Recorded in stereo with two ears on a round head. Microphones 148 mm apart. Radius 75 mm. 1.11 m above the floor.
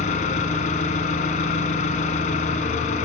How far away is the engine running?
About 2.5 m.